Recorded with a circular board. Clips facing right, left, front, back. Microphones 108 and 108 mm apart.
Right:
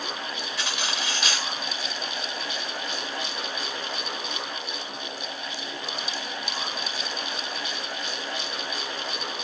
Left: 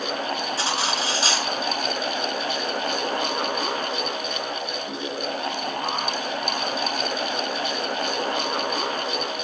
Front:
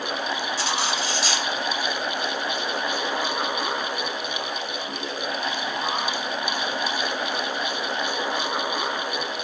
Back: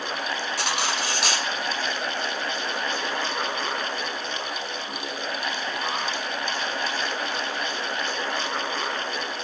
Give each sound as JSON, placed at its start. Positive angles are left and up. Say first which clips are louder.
{"t": 0.6, "sound": "cutlery clinking", "louder": "left 6 dB, front 1 dB", "azimuth_deg": 145, "distance_m": 3.0}